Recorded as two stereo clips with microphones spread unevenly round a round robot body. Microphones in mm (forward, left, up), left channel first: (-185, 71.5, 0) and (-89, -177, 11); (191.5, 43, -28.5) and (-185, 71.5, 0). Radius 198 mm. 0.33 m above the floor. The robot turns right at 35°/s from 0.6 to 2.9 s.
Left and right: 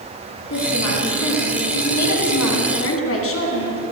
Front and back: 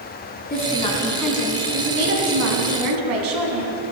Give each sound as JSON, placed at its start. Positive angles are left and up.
{"t": 0.5, "sound": "a woman speaking", "azimuth_deg": 60, "distance_m": 2.5}